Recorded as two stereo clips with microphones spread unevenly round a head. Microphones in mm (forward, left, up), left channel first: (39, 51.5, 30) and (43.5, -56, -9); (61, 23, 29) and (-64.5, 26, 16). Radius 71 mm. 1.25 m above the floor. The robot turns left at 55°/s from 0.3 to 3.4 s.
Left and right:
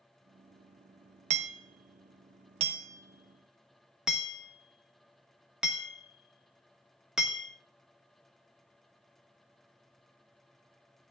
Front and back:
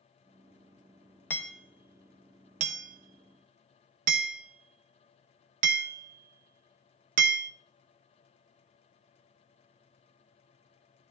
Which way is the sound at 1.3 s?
70° right.